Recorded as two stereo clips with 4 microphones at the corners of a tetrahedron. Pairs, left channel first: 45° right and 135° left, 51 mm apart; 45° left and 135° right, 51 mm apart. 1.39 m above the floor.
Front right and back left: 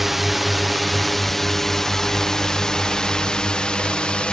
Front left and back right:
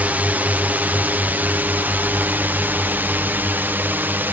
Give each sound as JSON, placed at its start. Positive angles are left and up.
{"t": 0.0, "sound": "a drone", "azimuth_deg": -145}